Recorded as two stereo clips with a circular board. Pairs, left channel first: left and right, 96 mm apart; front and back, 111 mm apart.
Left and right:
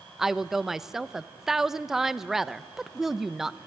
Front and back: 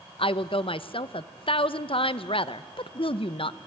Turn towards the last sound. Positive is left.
turn(degrees=-5)